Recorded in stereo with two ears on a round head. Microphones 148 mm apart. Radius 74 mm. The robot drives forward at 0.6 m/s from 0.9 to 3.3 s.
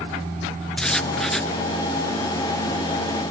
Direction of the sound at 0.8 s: 5° left (ahead or behind).